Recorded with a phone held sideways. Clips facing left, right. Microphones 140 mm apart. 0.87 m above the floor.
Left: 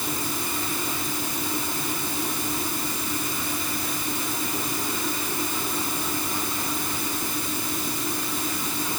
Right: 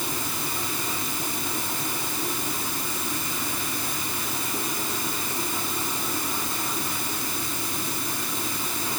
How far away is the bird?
No bird in this recording.